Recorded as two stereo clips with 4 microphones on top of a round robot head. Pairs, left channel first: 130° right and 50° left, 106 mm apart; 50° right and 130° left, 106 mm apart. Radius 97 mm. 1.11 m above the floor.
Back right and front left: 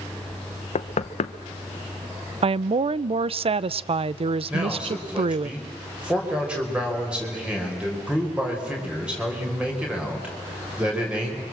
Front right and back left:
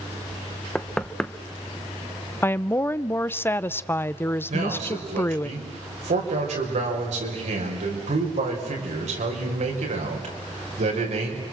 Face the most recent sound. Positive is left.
turn(degrees=130)